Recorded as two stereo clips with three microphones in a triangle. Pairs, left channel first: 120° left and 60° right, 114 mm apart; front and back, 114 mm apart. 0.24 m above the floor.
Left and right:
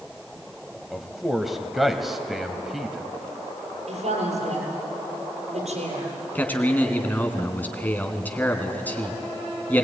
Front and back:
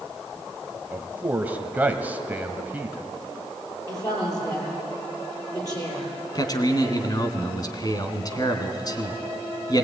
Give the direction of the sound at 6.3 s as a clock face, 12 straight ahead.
10 o'clock.